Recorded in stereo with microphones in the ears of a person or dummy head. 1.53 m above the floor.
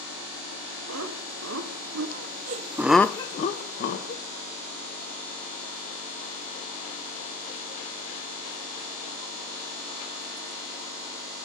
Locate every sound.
0.9 s laughter: 80° right, 2 m; by 4.2 s 65° left (ahead or behind), 1.5 m